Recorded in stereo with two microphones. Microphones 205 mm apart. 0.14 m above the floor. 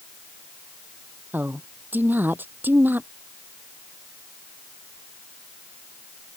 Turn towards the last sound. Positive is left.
turn(degrees=-10)  # may be behind; listen again after turning